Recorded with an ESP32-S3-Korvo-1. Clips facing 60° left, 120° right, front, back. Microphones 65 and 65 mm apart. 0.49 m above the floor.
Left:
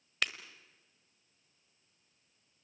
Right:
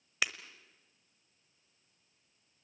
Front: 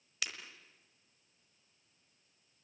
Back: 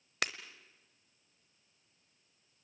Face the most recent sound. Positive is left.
turn(degrees=160)